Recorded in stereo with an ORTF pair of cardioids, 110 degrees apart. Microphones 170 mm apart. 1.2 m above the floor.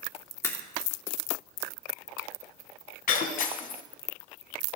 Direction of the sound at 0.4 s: 15° left.